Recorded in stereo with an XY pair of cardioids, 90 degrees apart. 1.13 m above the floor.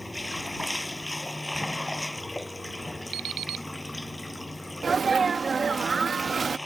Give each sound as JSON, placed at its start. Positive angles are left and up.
{"t": 0.0, "sound": "running water", "azimuth_deg": 15}
{"t": 3.1, "sound": "an alarm clock", "azimuth_deg": -70}
{"t": 4.8, "sound": "a sneeze", "azimuth_deg": -35}